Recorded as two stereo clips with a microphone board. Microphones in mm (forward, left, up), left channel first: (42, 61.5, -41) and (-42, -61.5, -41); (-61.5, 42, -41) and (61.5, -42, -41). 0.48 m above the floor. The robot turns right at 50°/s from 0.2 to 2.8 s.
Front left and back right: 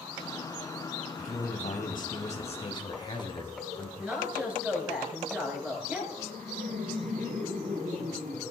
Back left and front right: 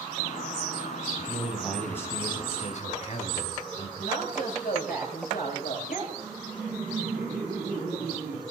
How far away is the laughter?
About 6.5 m.